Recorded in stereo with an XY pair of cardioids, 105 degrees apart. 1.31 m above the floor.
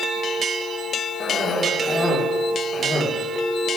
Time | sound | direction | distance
1.2 | a cough | 30° left | 4.5 m